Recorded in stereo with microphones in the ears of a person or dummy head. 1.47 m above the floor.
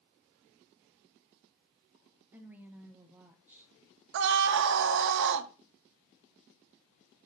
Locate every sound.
2.3 s a woman speaking: 15° right (ahead or behind), 1.2 m
4.1 s a scream: 60° right (ahead or behind), 0.7 m